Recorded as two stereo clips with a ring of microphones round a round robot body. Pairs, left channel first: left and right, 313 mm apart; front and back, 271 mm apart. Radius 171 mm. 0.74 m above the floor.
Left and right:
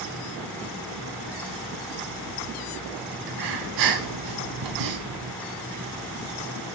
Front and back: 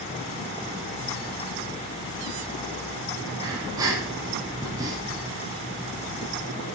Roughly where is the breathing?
Right.